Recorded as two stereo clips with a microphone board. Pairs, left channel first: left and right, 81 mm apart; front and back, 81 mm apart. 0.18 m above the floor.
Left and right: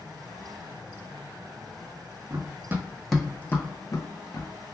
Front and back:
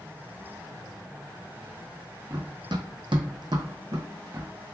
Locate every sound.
2.3 s running footsteps: 135° right, 0.6 m; by 4.8 s 120° left, 1.0 m